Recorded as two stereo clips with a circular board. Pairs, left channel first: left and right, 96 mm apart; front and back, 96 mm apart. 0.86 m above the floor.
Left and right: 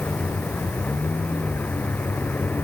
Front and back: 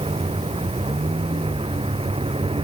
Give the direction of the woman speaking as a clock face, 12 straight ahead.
I don't hear a woman speaking.